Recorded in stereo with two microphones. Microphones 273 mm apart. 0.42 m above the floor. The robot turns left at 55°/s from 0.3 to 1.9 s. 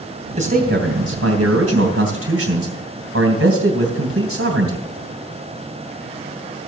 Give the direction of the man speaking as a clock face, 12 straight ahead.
1 o'clock.